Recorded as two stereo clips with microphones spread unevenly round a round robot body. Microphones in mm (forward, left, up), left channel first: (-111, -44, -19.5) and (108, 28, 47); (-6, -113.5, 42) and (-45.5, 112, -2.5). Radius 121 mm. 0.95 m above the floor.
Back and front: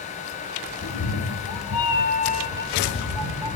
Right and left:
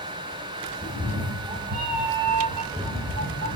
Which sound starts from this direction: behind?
A cat meowing, at 0.8 s.